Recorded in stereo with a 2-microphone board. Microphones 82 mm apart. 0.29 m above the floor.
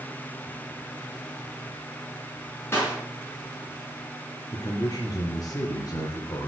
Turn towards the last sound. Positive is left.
turn(degrees=50)  # may be behind; listen again after turning